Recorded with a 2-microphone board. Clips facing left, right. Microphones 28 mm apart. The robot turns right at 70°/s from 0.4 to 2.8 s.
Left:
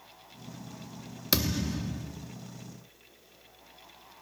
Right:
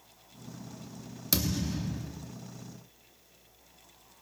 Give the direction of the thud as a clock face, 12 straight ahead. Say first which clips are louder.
Left 2 dB; 7 o'clock.